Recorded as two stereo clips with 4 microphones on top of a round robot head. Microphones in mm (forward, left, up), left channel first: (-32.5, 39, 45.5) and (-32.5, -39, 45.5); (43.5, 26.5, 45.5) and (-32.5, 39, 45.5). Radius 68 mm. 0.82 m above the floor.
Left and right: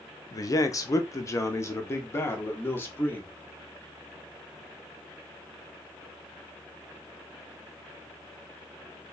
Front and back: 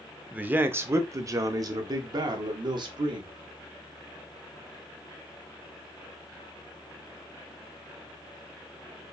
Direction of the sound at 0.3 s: 105° left.